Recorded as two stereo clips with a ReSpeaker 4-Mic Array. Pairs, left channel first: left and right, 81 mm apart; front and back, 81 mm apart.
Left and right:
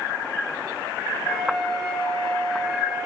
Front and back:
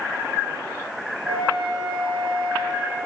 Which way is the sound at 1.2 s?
175° left.